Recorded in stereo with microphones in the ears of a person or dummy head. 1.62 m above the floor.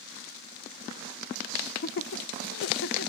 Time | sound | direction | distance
1.6 | laughter | 40° left (ahead or behind) | 0.7 m